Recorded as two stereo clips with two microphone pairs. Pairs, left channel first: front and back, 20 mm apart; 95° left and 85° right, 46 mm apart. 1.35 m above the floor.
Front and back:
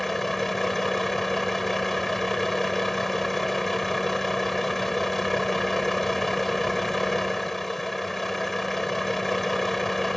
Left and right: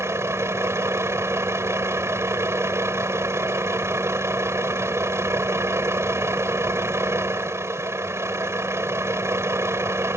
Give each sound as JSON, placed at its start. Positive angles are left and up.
{"t": 0.0, "sound": "a vehicle", "azimuth_deg": -80}